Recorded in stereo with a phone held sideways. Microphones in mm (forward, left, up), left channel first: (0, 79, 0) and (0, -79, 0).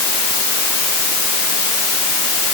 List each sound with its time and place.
Only background noise.